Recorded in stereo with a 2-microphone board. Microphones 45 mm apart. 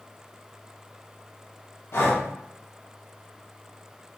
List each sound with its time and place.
1.9 s breathing: 65° left (ahead or behind), 0.6 m